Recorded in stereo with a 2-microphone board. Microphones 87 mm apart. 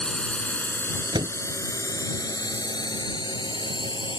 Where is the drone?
10° left (ahead or behind); by 4.2 s 60° left (ahead or behind).